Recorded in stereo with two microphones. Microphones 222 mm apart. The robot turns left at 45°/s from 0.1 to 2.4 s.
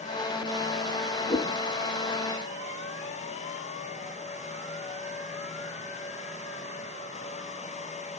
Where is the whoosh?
10° left (ahead or behind), 3.5 m; by 1.6 s 20° left (ahead or behind), 3.5 m.